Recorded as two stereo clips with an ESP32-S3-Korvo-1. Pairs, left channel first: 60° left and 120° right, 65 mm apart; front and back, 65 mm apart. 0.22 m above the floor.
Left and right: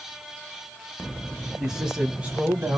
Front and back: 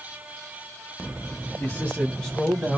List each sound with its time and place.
1.6 s a man speaking: 45° right, 1.9 m; by 2.8 s 85° right, 1.8 m